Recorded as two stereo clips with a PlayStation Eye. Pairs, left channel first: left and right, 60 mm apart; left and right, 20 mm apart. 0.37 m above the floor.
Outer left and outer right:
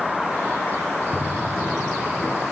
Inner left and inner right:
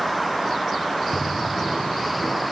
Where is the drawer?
5° left (ahead or behind), 1.6 m.